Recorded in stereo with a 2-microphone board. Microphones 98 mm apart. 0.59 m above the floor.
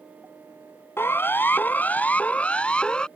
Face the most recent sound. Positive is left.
turn(degrees=10)  # may be behind; listen again after turning